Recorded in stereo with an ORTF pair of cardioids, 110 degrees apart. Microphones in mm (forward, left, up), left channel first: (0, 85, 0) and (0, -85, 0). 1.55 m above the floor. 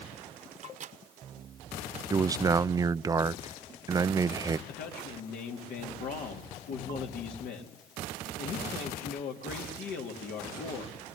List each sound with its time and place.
0.6 s a microwave: 45° right, 1.1 m
2.1 s a man speaking: 20° right, 0.5 m
4.7 s a man speaking: 70° left, 3.5 m